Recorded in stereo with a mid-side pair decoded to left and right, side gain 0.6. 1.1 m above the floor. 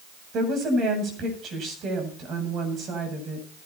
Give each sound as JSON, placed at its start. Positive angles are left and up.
{"t": 0.3, "sound": "a woman speaking", "azimuth_deg": -50, "distance_m": 8.0}